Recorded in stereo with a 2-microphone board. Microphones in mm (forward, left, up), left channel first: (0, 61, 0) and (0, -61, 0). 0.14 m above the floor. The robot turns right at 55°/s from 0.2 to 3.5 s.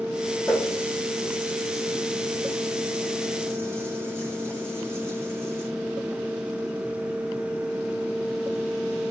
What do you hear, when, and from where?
0.5 s a running tap: 10° left (ahead or behind), 6 m; by 5.7 s 20° right (ahead or behind), 6 m